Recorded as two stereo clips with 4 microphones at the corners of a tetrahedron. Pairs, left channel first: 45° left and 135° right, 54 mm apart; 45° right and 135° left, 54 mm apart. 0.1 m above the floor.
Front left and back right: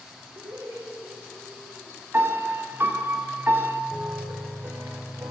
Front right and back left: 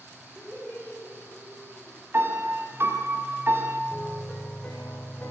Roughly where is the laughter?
Behind right.